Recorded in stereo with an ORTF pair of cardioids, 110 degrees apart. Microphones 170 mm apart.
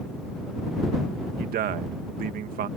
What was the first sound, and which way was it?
A man speaking, 60° right.